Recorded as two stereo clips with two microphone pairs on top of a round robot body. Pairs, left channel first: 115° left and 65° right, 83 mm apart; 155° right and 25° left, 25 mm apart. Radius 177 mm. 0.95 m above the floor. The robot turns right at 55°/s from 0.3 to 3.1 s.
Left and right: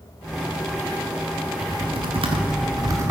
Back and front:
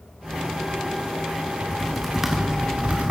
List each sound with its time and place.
1.6 s typing on a keyboard: 85° right, 1.3 m; by 3.1 s 5° right, 1.3 m